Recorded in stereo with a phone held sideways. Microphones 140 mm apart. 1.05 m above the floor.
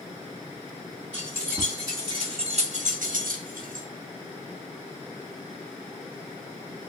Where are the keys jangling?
15° right (ahead or behind), 2.0 m; by 3.9 s 70° right (ahead or behind), 1.2 m.